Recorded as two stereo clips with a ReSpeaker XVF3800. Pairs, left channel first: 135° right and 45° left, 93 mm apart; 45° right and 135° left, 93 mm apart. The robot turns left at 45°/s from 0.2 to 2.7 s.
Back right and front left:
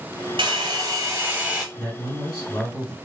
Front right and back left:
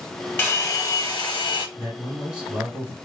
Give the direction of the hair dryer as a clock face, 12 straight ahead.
11 o'clock.